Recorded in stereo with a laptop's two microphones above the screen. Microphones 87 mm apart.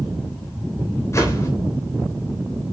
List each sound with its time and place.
1.1 s a whoosh: 35° left (ahead or behind), 3 m